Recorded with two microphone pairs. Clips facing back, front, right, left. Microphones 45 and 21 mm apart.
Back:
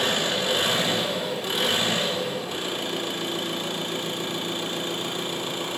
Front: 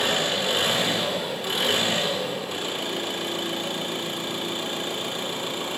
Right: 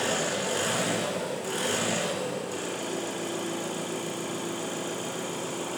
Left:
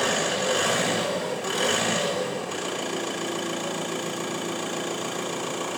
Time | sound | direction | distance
0.0 | an engine running | 90° left | 1.8 m